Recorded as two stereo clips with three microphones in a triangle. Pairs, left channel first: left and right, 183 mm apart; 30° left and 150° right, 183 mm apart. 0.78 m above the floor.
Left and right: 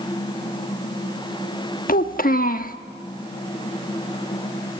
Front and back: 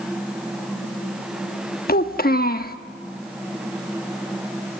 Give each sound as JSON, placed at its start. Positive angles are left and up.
{"t": 1.9, "sound": "a child speaking", "azimuth_deg": 60, "distance_m": 1.1}